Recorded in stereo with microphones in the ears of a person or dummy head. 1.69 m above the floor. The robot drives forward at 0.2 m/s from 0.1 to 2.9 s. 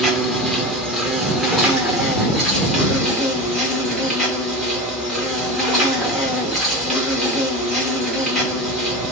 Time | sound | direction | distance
0.0 | an insect | centre (ahead or behind) | 0.8 m